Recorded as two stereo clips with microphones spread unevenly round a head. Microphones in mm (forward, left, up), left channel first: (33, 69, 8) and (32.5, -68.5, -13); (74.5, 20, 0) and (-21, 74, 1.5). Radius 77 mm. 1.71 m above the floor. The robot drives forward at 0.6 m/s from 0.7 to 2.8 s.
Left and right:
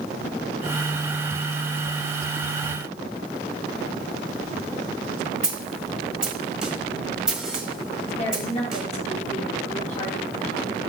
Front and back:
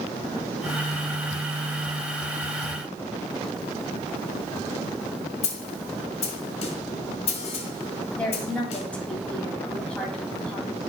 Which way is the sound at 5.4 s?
5° right.